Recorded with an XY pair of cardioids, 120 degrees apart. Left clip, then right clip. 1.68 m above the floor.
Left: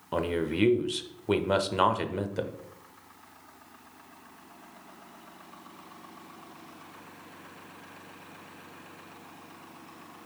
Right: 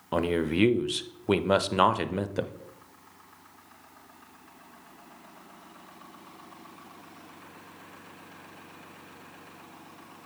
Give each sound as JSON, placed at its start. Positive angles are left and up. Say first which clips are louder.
{"t": 0.1, "sound": "a man speaking", "louder": "right 2 dB", "azimuth_deg": -20, "distance_m": 0.6}